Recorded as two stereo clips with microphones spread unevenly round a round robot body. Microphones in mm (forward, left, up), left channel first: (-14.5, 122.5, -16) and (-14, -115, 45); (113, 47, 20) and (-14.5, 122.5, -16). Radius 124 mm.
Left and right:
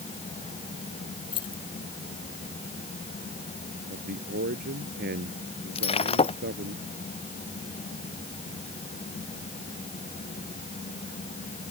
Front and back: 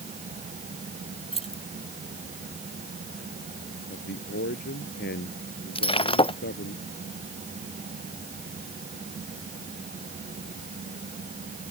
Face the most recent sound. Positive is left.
turn(degrees=20)